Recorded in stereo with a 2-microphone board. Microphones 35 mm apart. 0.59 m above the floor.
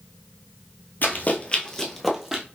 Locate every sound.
1.0 s running footsteps: 55° left (ahead or behind), 0.9 m; by 2.4 s 15° right (ahead or behind), 1.2 m